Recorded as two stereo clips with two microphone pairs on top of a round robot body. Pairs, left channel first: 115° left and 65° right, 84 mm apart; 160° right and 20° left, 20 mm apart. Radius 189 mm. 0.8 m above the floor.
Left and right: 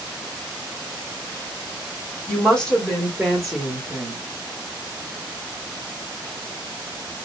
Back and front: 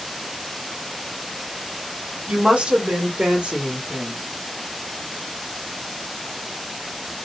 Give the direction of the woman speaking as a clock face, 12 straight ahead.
11 o'clock.